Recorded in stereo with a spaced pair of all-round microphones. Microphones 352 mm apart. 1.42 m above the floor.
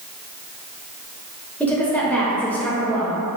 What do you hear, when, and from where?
1.6 s a woman speaking: 5° left (ahead or behind), 1.2 m